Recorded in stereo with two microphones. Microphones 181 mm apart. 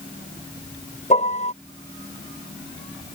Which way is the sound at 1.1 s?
40° left (ahead or behind).